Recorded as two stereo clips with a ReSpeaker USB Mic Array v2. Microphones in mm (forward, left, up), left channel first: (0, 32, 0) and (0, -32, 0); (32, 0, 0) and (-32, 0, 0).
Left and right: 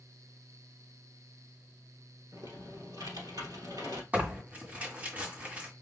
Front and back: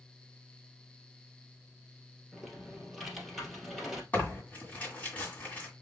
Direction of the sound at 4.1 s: 45° right.